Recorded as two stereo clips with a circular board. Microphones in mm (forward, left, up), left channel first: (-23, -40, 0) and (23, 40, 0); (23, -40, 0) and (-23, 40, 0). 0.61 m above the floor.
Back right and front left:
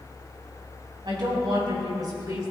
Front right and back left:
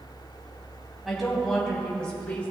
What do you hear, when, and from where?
1.1 s a woman speaking: 30° left, 3.5 m; by 2.5 s 10° left, 3 m